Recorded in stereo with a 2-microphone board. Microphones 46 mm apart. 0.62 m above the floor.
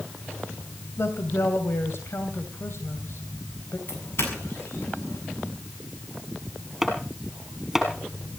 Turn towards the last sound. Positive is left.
turn(degrees=-5)  # may be behind; listen again after turning